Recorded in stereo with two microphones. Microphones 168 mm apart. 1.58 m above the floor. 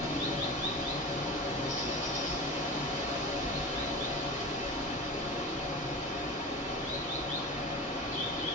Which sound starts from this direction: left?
Running water, at 0.0 s.